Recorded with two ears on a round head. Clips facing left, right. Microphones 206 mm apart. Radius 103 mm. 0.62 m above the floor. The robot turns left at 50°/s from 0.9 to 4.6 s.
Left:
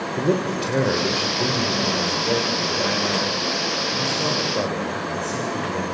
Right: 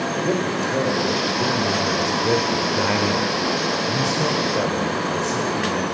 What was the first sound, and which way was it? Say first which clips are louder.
A man speaking: left 2 dB; 25° left.